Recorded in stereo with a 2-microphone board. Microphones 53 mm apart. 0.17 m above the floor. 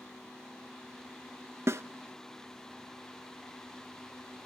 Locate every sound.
1.7 s a snare drum: 60° right (ahead or behind), 0.5 m